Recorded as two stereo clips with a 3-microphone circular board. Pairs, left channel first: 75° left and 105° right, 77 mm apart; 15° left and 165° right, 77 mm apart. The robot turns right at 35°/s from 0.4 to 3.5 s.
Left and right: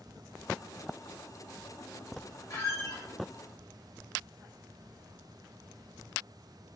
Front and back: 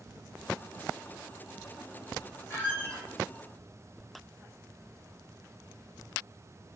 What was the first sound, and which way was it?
A squeak, 65° left.